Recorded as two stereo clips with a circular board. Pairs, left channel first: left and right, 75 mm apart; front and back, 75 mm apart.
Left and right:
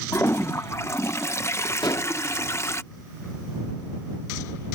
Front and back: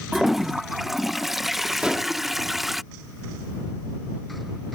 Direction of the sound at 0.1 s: 95° left.